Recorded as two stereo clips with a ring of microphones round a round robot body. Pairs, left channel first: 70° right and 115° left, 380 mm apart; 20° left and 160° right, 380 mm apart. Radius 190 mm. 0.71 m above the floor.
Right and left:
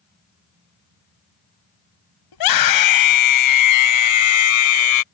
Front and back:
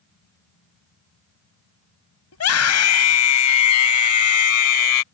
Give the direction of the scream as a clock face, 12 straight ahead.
1 o'clock.